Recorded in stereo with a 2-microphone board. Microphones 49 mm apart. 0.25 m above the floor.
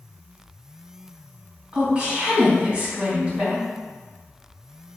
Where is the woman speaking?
30° right (ahead or behind), 1.7 m.